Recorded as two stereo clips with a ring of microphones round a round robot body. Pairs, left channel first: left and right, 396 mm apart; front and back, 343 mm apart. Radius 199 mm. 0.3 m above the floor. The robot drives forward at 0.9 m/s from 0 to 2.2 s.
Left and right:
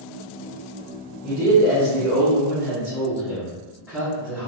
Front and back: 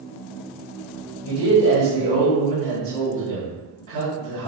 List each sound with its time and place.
1.2 s a man speaking: 175° right, 1.9 m